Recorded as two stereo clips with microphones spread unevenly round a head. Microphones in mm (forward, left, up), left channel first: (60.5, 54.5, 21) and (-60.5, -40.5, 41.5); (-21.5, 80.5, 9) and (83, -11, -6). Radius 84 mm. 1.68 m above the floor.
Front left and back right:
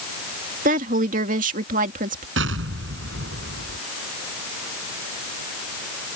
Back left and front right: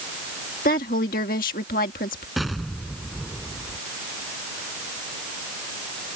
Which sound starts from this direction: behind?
A woman speaking, at 0.7 s.